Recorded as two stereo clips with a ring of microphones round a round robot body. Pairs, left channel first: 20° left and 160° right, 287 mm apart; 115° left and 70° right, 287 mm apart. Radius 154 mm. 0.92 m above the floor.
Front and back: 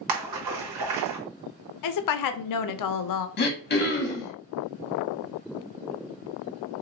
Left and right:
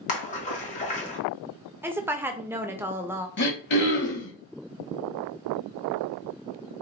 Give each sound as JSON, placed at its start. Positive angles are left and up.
{"t": 0.1, "sound": "a splash", "azimuth_deg": 175, "distance_m": 1.0}
{"t": 1.8, "sound": "a woman speaking", "azimuth_deg": 15, "distance_m": 0.6}
{"t": 3.4, "sound": "throat clearing", "azimuth_deg": 70, "distance_m": 1.2}